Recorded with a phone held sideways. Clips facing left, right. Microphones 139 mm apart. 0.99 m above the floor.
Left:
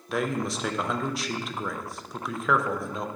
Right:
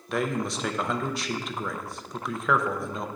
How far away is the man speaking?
About 0.5 m.